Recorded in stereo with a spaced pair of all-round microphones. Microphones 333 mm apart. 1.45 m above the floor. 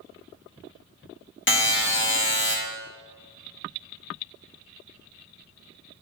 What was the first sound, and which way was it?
A buzzer, 40° left (ahead or behind).